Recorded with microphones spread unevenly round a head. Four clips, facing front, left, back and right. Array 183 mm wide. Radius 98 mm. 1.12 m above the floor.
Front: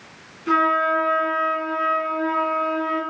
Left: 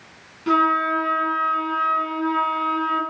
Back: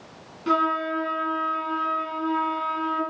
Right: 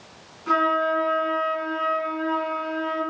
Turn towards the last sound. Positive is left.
turn(degrees=145)